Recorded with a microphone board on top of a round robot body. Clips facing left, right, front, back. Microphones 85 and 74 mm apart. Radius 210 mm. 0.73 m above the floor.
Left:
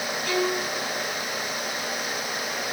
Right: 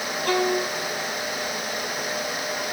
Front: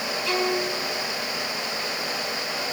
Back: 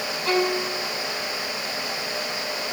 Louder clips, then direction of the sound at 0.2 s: Right 4 dB, back 3 dB; 135° right.